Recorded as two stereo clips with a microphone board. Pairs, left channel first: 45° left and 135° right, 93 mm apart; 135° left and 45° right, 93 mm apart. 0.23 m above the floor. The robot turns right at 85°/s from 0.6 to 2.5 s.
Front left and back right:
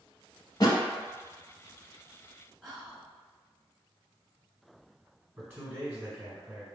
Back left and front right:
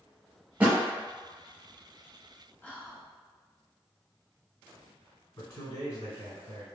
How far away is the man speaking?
About 1.3 m.